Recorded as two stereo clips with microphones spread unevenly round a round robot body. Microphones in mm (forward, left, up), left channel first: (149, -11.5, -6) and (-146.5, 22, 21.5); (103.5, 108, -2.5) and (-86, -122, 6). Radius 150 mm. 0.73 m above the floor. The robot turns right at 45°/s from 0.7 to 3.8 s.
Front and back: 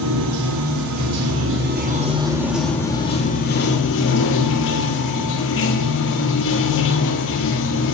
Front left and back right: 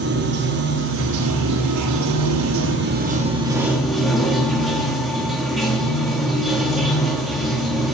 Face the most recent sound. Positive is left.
turn(degrees=-40)